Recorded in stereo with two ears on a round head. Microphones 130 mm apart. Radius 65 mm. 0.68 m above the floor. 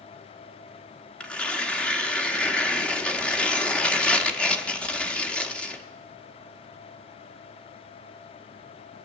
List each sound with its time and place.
1.2 s tearing paper: 5° left (ahead or behind), 1.0 m